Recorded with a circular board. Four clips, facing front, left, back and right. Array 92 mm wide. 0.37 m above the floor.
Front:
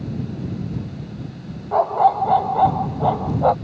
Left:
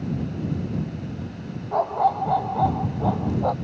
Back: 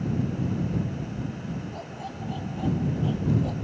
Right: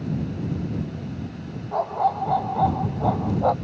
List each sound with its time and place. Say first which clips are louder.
1.7 s a dog barking: left 2 dB, front 21 dB; 10° left; by 3.5 s 15° right